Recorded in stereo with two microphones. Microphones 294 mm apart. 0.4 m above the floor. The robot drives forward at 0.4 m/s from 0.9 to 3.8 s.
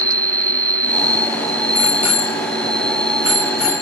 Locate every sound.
0.0 s an insect: 5° left (ahead or behind); by 3.8 s centre (ahead or behind)
1.8 s a bicycle bell: 65° left (ahead or behind); by 3.8 s 50° left (ahead or behind)